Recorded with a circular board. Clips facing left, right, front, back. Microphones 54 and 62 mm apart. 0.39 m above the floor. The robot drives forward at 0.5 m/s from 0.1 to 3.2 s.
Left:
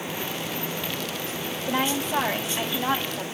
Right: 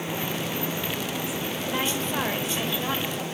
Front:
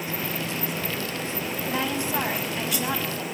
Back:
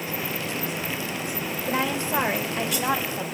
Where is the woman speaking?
170° left, 1.3 m; by 3.3 s 175° left, 1.9 m.